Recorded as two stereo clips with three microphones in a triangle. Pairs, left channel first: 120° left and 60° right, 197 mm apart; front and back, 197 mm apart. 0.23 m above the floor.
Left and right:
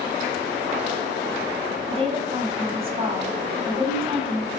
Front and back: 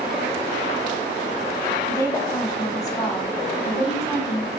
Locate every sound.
1.9 s a woman speaking: 55° right, 1.6 m